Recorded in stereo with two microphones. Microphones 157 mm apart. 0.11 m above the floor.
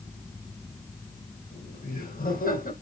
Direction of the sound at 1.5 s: 65° left (ahead or behind).